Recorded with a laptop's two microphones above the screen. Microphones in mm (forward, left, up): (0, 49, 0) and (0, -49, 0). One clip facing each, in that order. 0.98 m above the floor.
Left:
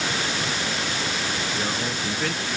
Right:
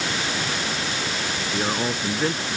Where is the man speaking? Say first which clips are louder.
Right 3 dB; 25° right (ahead or behind).